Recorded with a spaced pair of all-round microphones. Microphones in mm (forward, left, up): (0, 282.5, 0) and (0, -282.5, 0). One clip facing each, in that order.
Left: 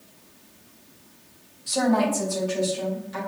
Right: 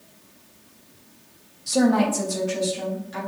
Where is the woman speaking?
65° right (ahead or behind), 1.3 m; by 3.2 s 80° right, 3 m.